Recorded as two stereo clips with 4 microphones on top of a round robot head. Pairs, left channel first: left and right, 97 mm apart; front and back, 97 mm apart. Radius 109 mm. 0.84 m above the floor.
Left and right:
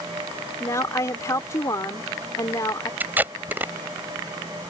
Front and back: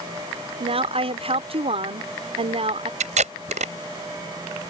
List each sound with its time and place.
0.6 s a woman speaking: 155° left
3.0 s tape being pulled: 170° right